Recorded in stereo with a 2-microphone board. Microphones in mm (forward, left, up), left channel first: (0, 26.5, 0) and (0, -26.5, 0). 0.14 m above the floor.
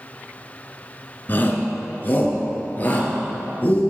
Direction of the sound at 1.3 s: 35° left (ahead or behind).